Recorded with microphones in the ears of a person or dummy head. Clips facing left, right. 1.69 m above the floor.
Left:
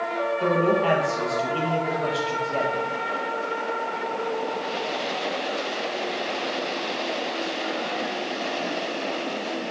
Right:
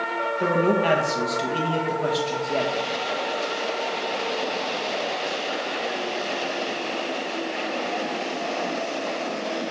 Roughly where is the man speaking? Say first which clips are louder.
Right 1 dB; right.